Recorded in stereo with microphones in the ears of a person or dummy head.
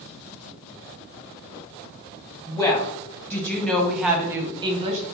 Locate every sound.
2.5 s a woman speaking: 30° left (ahead or behind), 1.4 m; by 5.0 s 35° right (ahead or behind), 0.8 m